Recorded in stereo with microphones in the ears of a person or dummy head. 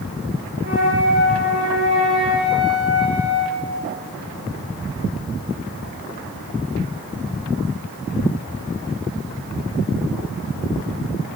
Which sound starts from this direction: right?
A flute, at 0.6 s.